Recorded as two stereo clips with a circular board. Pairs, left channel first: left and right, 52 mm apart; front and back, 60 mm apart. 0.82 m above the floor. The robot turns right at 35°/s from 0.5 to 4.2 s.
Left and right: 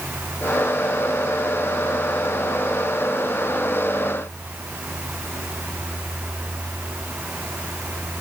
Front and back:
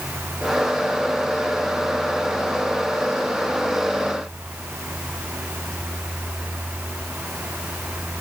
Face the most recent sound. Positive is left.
No sound to turn to.